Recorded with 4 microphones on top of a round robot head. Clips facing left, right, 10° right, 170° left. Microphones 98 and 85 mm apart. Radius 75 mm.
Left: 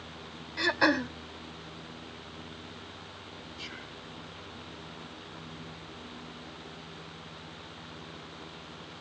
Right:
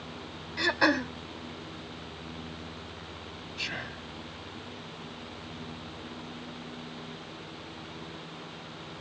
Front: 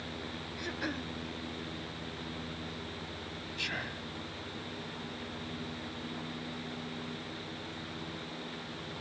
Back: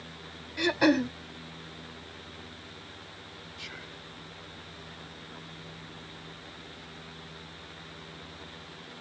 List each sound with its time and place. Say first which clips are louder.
0.6 s throat clearing: even, back 15 dB; straight behind
3.6 s whispering: right 5 dB, front 8 dB; 55° right